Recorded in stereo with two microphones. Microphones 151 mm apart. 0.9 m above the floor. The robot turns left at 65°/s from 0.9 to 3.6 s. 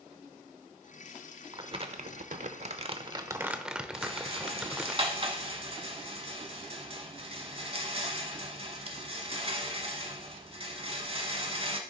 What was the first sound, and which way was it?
Crumpling, 40° right.